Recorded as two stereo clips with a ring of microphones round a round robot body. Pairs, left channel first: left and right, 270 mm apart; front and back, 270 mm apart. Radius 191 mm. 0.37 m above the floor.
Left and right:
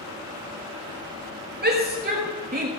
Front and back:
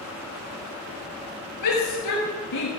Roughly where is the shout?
Ahead right.